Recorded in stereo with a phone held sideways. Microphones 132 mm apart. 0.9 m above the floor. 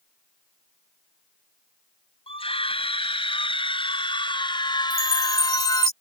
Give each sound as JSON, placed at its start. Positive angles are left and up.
{"t": 2.3, "sound": "a scream", "side_deg": 45}
{"t": 4.9, "sound": "a chime", "side_deg": -25}